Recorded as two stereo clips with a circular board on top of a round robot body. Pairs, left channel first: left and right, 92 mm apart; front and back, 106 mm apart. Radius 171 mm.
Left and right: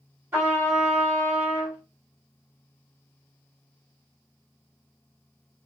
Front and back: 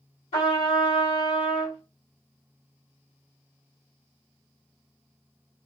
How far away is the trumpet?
About 2 m.